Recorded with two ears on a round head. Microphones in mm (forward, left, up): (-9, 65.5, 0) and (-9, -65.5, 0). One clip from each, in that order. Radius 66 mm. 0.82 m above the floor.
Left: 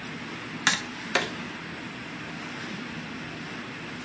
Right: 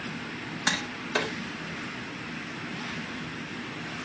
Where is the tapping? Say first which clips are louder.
Left 3 dB; 55° left (ahead or behind), 2.5 m.